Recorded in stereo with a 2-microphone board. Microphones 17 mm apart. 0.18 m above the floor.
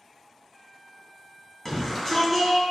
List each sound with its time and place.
1.6 s a shout: 20° left (ahead or behind), 1.2 m